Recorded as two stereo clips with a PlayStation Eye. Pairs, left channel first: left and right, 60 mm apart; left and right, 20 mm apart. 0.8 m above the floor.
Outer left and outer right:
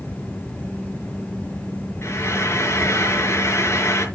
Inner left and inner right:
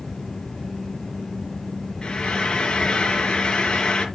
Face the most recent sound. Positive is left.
turn(degrees=45)  # may be behind; listen again after turning